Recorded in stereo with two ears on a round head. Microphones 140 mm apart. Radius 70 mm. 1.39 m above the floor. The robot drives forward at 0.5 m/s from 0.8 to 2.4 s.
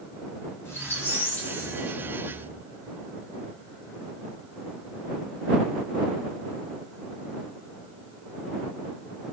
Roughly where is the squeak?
Centre.